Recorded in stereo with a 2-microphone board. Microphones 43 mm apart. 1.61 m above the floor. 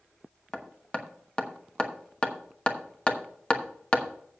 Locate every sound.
0.5 s hammering: 25° left (ahead or behind), 1.1 m